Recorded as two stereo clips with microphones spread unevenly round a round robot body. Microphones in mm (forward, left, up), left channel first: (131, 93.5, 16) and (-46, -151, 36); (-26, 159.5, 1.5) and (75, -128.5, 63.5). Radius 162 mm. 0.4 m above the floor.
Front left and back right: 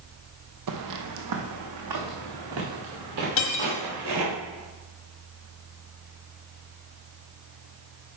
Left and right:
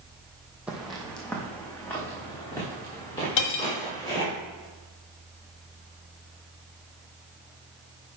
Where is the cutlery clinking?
100° left, 1.4 m.